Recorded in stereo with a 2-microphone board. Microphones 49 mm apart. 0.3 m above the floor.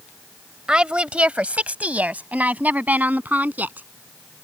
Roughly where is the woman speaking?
Centre.